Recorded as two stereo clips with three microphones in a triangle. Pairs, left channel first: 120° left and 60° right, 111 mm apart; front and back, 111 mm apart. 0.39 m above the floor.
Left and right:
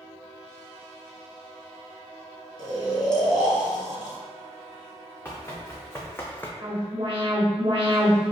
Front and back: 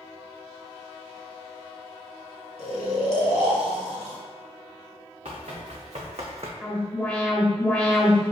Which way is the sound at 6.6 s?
75° right.